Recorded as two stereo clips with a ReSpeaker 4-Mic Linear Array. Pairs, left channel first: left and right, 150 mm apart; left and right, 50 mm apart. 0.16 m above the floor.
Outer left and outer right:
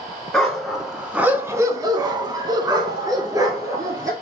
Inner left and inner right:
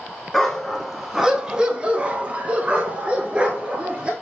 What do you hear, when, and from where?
0.3 s a dog barking: centre (ahead or behind), 0.9 m; by 4.1 s 20° right (ahead or behind), 1.4 m